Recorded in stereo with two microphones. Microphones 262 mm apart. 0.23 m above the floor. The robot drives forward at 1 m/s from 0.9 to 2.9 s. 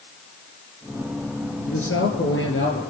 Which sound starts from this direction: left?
A man speaking, at 1.7 s.